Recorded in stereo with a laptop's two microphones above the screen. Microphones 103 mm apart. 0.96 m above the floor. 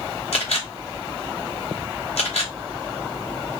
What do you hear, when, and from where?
0.3 s a camera shutter: 80° left, 1.1 m